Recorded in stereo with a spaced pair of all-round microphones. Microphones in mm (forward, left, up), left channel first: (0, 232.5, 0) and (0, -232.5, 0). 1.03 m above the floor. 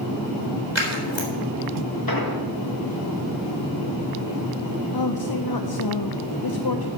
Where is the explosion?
50° left (ahead or behind), 1.4 m.